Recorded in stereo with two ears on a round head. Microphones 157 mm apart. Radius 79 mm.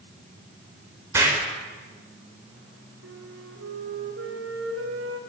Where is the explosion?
15° right (ahead or behind), 4.5 m.